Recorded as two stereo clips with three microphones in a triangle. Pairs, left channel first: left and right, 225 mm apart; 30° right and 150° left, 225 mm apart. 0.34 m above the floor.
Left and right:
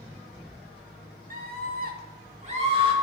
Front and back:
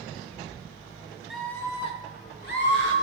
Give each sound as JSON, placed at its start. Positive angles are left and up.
{"t": 1.3, "sound": "a scream", "azimuth_deg": -120, "distance_m": 1.4}